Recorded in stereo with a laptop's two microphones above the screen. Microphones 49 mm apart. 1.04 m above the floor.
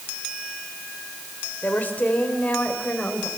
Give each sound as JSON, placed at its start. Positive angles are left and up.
{"t": 1.6, "sound": "a woman speaking", "side_deg": 35, "distance_m": 4.0}